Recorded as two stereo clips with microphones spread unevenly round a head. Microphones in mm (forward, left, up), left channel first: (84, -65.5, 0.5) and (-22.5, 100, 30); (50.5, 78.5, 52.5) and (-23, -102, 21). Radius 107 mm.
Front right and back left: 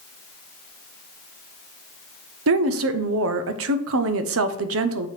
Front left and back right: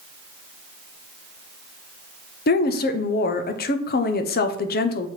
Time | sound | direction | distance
2.5 | a woman speaking | 115° left | 0.7 m